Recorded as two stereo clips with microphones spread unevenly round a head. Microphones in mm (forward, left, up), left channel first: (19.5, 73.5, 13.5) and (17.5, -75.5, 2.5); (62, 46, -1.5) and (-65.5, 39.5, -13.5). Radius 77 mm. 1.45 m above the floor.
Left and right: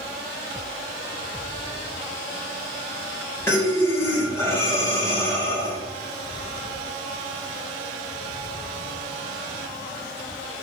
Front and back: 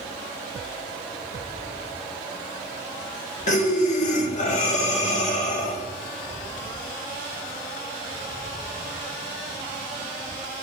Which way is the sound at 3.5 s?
20° left.